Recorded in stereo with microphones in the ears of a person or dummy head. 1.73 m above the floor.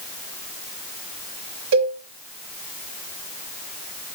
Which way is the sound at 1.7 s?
65° right (ahead or behind).